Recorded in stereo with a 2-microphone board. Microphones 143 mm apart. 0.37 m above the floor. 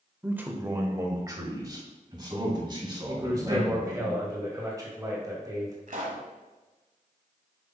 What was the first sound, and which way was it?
A man speaking, 10° right (ahead or behind).